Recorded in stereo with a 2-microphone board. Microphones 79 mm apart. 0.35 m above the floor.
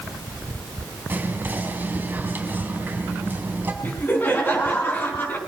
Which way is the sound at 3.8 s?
25° left (ahead or behind).